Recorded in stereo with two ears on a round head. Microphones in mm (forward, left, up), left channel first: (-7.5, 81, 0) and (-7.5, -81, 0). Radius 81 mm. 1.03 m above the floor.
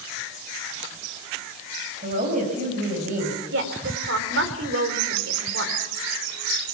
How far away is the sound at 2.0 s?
About 5.5 m.